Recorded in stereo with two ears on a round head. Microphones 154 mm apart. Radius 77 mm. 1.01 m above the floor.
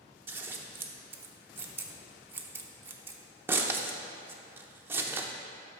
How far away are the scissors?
About 0.6 m.